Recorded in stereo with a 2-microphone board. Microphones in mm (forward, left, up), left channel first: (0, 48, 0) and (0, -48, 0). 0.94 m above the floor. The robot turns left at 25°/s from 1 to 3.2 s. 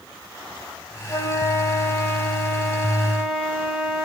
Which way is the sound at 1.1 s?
40° left.